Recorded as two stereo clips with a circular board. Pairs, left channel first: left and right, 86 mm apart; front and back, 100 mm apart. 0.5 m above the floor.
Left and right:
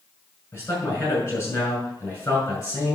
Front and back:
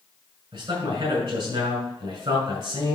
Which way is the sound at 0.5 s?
150° left.